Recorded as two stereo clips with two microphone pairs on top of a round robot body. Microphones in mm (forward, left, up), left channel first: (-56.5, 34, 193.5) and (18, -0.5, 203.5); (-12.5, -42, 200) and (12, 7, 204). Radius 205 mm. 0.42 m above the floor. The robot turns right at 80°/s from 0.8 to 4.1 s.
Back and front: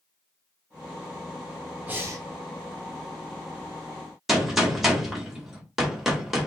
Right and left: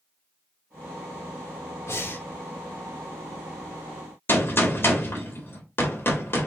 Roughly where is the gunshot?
Behind right.